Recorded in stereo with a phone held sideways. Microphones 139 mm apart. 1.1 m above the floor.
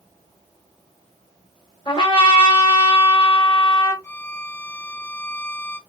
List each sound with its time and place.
1.9 s a trumpet: 35° left (ahead or behind), 1.3 m
4.0 s a violin: 20° left (ahead or behind), 0.8 m